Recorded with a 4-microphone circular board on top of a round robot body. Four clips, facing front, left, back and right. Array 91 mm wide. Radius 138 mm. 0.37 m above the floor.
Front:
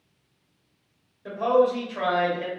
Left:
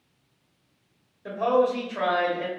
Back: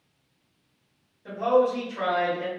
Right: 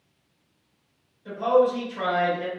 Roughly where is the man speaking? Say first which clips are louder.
Right 2 dB, front 1 dB; ahead left.